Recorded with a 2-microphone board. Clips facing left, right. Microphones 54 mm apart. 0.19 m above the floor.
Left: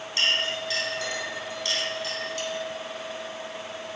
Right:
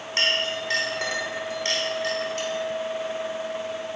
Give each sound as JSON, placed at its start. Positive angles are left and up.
{"t": 0.2, "sound": "a clink", "side_deg": -40, "distance_m": 0.8}